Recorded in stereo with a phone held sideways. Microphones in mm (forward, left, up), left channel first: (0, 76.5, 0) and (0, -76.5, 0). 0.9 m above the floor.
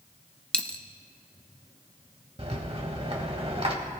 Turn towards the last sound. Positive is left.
turn(degrees=-40)  # may be behind; listen again after turning